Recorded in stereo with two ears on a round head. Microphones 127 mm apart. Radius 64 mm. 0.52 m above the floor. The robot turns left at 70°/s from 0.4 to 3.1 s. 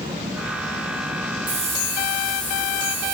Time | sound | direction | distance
1.5 | a hiss | 120° right | 5.5 m